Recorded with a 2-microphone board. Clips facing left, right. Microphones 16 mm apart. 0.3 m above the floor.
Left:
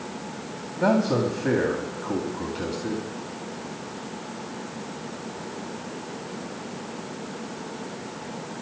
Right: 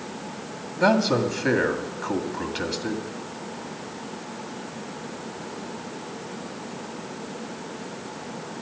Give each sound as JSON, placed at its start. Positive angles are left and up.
{"t": 0.8, "sound": "a man speaking", "side_deg": -55, "distance_m": 2.0}